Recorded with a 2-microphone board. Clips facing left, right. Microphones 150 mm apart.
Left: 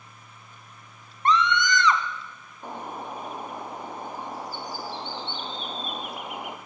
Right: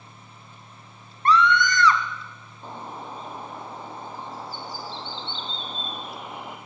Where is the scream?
20° left (ahead or behind), 1.3 m.